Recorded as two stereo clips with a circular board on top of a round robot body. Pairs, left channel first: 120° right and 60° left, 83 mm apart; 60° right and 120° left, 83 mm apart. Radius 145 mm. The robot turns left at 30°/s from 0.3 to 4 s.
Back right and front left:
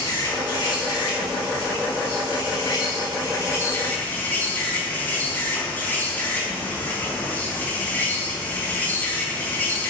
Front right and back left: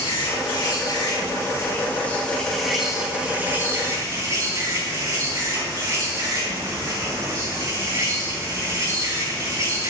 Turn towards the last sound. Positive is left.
turn(degrees=170)